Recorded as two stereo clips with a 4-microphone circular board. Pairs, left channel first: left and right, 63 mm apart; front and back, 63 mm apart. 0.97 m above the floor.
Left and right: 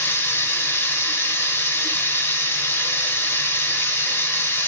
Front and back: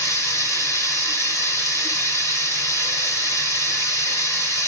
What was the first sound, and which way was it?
Running water, 35° left.